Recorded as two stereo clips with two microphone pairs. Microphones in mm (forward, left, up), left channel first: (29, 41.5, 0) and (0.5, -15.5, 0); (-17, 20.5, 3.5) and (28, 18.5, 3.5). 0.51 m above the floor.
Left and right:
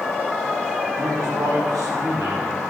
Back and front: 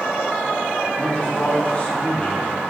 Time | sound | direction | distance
1.0 | a man speaking | 120° right | 4 m